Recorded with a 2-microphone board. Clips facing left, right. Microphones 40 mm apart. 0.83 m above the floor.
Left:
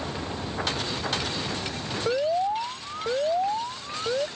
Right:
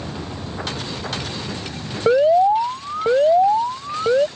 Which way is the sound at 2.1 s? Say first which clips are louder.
Right 11 dB; 35° right (ahead or behind).